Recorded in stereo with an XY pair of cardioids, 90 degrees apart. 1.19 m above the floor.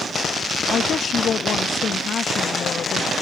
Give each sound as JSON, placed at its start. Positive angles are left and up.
{"t": 0.7, "sound": "a woman speaking", "azimuth_deg": 60}